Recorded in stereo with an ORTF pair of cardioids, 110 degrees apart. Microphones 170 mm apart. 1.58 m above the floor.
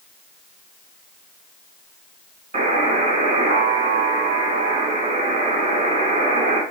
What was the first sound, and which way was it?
A buzzer, 45° right.